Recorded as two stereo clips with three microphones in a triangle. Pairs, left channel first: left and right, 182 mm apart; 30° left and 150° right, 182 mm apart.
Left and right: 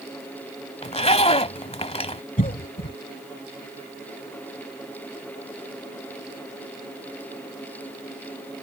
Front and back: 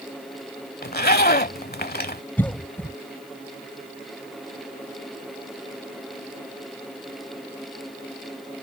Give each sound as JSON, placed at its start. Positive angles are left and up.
{"t": 0.8, "sound": "a zipper", "azimuth_deg": 40}
{"t": 2.4, "sound": "a cough", "azimuth_deg": 105}